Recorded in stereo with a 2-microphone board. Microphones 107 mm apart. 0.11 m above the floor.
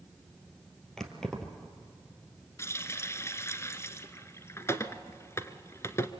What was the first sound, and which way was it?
Keys jangling, 5° left (ahead or behind).